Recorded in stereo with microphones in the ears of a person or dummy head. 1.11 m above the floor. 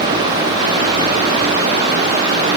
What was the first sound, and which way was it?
Only background noise.